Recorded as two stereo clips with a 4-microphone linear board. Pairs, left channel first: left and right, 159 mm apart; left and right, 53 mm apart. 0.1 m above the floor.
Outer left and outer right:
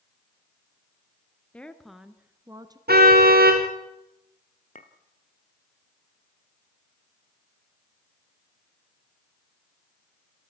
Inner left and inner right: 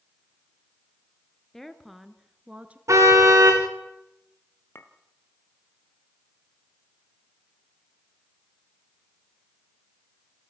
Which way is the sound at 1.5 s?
10° left (ahead or behind).